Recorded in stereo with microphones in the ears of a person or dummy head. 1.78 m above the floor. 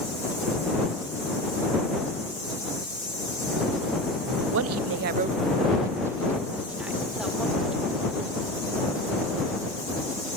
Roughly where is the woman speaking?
Right.